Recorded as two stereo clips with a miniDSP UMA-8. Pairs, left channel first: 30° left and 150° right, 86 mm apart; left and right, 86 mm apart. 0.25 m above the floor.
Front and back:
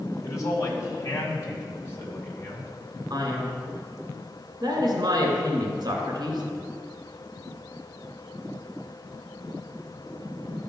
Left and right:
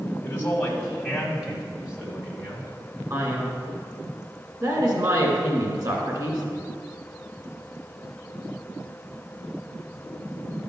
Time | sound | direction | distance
0.2 | a man speaking | 35° left | 1.5 m
3.1 | a man speaking | 125° right | 2.5 m